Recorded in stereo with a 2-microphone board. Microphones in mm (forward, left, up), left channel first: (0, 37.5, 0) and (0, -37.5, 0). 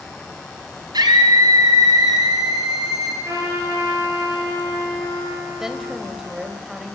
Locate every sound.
0.9 s a scream: 65° right (ahead or behind), 4 m; by 3.1 s 55° right (ahead or behind), 5 m
3.2 s a trumpet: 45° right (ahead or behind), 6 m
5.6 s a woman speaking: 5° right (ahead or behind), 2.5 m